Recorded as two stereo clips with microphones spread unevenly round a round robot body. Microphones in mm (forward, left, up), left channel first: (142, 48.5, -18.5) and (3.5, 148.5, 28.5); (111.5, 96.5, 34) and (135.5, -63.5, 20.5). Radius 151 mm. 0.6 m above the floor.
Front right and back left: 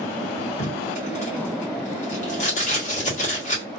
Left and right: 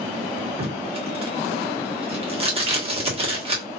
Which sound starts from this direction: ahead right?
Tape being pulled, at 0.6 s.